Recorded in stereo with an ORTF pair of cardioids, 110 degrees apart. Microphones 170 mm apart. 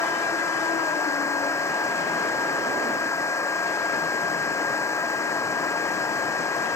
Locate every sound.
0.0 s a fan: 15° left